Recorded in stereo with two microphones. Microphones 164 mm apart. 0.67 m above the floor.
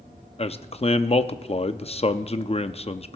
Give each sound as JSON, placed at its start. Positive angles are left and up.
{"t": 0.4, "sound": "a man speaking", "side_deg": 40, "distance_m": 0.6}